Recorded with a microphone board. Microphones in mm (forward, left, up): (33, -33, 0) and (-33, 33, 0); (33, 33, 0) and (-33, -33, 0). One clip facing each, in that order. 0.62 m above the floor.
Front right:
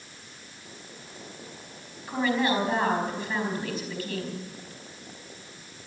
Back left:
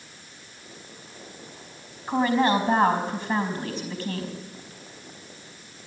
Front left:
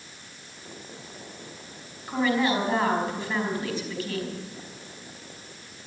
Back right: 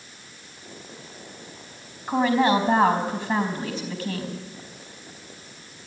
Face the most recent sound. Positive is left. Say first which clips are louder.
# back left 4 dB, back right 4 dB
turn(degrees=-165)